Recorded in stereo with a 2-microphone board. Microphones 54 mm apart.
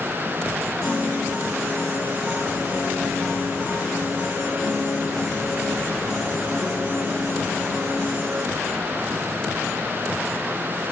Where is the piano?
5° right (ahead or behind), 1.8 m.